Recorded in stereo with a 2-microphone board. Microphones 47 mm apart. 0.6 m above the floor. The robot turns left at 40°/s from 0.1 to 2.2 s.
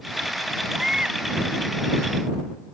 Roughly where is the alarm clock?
No alarm clock in this recording.